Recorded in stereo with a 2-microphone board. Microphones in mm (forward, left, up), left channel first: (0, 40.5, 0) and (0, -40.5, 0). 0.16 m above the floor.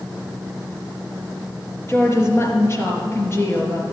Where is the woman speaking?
35° left (ahead or behind), 3.5 m.